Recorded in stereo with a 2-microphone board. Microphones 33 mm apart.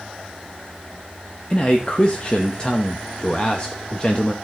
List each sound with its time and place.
1.5 s a man speaking: 30° left (ahead or behind), 1.0 m